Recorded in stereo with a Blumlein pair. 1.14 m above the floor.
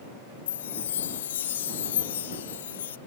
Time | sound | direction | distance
0.5 | a chime | 60° left | ?